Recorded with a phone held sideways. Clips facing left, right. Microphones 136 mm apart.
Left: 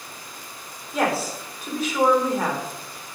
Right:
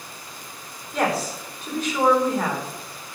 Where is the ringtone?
I don't hear a ringtone.